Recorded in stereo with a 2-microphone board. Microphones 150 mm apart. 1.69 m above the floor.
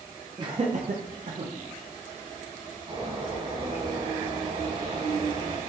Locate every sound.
0.4 s laughter: 30° right (ahead or behind), 0.6 m; by 1.5 s 55° right (ahead or behind), 0.8 m
2.9 s a bird: 50° right (ahead or behind), 2 m